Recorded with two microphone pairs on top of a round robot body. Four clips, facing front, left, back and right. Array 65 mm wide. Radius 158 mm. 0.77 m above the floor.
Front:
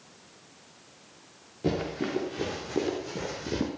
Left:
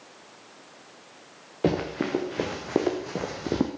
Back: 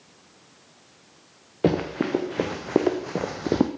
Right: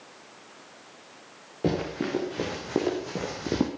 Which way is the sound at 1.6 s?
150° left.